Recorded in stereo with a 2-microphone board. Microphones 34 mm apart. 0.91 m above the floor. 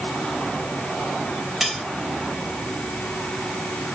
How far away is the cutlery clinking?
About 2.5 m.